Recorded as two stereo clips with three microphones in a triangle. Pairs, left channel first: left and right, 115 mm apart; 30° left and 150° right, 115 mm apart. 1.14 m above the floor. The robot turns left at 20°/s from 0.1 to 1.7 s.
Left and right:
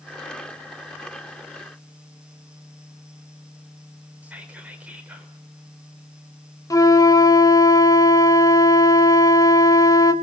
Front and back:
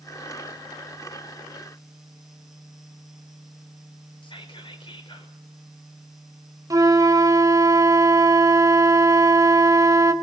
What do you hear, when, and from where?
4.2 s whispering: 15° right, 4.5 m
6.7 s a flute: 150° left, 1.3 m